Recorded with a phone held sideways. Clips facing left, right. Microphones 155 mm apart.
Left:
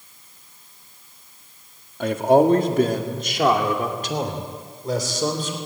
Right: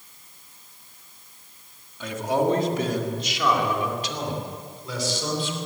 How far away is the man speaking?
About 2 m.